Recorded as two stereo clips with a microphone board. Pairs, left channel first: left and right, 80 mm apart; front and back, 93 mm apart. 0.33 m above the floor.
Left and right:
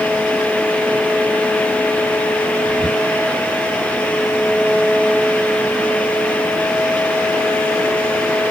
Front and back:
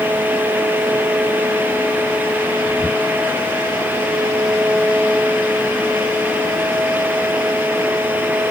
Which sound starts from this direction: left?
Whispering, at 2.6 s.